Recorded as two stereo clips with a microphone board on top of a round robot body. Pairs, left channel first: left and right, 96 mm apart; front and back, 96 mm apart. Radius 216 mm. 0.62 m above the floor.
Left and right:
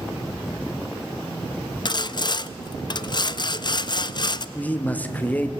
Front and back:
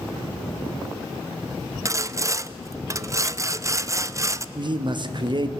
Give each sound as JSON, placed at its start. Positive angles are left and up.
{"t": 1.9, "sound": "sawing", "azimuth_deg": 125, "distance_m": 0.6}
{"t": 4.5, "sound": "a man speaking", "azimuth_deg": 160, "distance_m": 1.5}